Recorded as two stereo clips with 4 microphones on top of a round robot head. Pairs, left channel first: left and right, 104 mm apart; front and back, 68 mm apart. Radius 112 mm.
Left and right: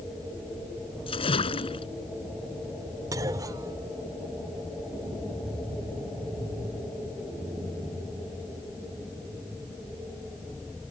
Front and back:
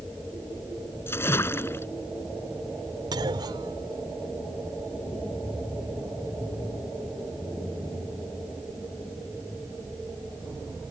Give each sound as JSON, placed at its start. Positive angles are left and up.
{"t": 1.1, "sound": "a splash", "azimuth_deg": 55}
{"t": 3.1, "sound": "a clunk", "azimuth_deg": -150}